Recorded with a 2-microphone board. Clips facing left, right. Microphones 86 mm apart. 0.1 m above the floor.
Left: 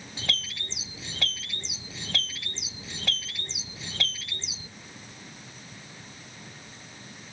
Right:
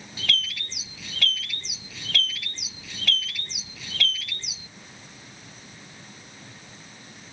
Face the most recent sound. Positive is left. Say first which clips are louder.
# right 4 dB
turn(degrees=25)  # may be behind; listen again after turning